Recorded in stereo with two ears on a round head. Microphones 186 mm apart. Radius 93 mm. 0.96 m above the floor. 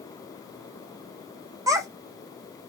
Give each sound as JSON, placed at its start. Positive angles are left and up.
{"t": 1.7, "sound": "a child speaking", "side_deg": -15, "distance_m": 0.9}